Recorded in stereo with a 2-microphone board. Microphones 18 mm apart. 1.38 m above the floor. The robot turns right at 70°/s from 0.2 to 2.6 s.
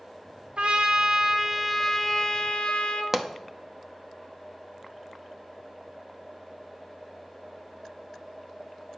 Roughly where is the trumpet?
Right.